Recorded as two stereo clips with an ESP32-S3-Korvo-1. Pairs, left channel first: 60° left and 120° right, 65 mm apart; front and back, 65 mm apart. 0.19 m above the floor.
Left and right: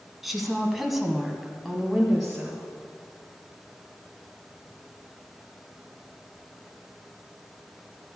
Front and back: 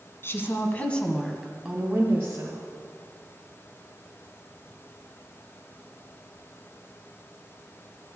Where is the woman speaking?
35° right, 1.5 m; by 2.6 s 150° left, 1.7 m.